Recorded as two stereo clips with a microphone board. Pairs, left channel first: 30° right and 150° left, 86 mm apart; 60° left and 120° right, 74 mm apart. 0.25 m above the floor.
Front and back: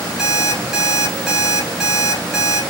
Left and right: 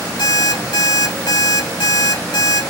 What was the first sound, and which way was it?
An alarm clock, 65° left.